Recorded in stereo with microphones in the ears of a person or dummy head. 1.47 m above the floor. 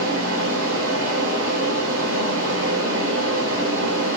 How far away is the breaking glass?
I don't hear breaking glass.